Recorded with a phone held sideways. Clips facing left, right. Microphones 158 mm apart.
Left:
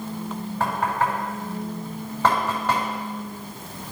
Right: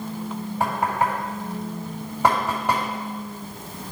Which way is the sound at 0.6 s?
10° right (ahead or behind).